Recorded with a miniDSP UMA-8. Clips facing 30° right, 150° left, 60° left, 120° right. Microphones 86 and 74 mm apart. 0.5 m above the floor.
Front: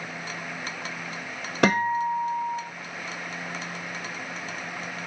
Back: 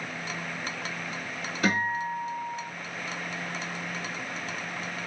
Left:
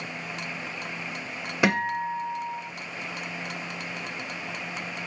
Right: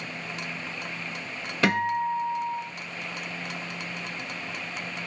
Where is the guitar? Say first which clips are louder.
Front 6 dB, right 1 dB; 15° right, 0.5 m.